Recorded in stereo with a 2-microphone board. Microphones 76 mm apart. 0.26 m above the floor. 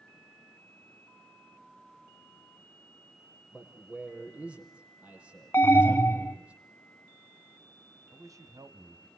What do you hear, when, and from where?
3.5 s a man speaking: 15° right (ahead or behind), 7.5 m
5.5 s an alarm: 30° left (ahead or behind), 1.3 m
8.1 s a man speaking: 50° right (ahead or behind), 2.0 m